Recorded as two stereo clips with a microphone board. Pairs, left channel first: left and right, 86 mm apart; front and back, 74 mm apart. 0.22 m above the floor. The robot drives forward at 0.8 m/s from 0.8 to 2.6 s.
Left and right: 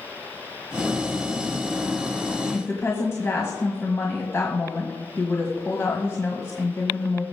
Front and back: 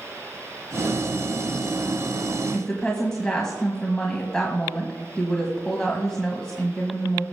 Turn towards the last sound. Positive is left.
turn(degrees=75)